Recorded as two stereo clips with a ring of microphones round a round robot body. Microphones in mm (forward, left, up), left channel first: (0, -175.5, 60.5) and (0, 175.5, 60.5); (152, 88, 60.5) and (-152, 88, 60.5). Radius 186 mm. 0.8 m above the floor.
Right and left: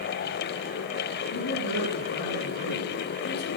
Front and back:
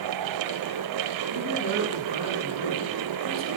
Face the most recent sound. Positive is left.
turn(degrees=-155)